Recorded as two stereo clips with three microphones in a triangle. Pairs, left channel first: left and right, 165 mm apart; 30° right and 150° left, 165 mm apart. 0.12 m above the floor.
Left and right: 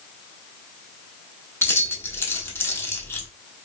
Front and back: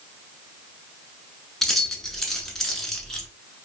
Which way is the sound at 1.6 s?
55° left.